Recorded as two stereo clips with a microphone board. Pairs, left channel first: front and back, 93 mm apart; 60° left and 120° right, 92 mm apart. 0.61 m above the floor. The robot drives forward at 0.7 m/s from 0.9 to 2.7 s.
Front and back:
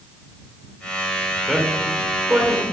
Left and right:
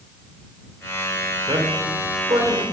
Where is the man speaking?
90° right, 2 m; by 2.6 s 115° right, 2.5 m.